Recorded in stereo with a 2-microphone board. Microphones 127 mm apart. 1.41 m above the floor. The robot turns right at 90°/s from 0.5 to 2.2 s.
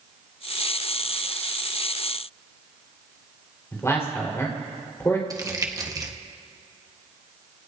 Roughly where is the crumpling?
Right.